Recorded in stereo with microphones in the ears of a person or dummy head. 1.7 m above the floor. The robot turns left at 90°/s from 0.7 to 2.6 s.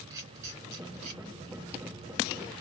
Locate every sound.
0.1 s a camera shutter: 20° right (ahead or behind), 2.5 m; by 1.2 s 55° right (ahead or behind), 2.5 m